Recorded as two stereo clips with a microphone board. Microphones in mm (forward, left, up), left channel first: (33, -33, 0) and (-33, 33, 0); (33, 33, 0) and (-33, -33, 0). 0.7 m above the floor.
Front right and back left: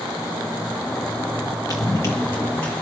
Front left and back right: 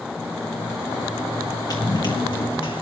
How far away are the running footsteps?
About 2 m.